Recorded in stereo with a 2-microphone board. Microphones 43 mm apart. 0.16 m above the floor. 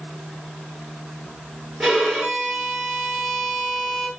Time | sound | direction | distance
1.8 | a violin | centre (ahead or behind) | 3 m